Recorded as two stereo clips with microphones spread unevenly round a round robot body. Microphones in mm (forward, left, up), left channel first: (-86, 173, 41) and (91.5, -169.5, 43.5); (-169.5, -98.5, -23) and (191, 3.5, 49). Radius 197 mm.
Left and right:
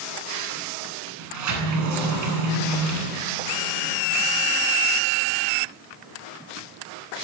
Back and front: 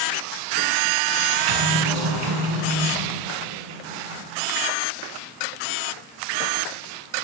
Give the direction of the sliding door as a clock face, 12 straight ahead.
12 o'clock.